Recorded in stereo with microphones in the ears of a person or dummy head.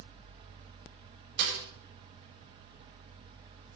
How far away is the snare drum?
About 5.5 m.